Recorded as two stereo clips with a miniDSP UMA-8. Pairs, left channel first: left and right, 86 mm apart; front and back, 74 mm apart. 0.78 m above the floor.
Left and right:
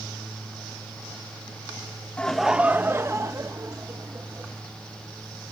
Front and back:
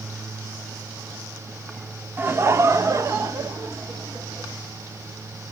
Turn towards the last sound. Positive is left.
turn(degrees=-125)